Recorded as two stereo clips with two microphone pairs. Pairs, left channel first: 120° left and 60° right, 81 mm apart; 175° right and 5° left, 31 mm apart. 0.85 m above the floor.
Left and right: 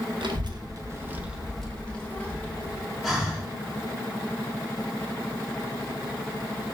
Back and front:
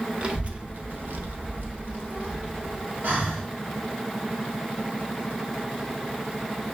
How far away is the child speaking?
About 0.7 m.